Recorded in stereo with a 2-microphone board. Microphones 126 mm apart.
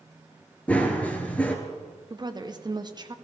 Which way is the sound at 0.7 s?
10° left (ahead or behind).